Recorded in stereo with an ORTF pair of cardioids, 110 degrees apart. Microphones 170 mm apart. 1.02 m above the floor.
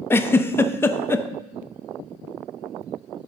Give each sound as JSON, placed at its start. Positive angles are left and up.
{"t": 0.1, "sound": "a giggle", "azimuth_deg": 15, "distance_m": 0.5}